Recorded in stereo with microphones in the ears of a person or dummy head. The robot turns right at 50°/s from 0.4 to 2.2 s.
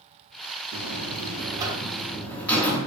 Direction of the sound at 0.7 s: 65° right.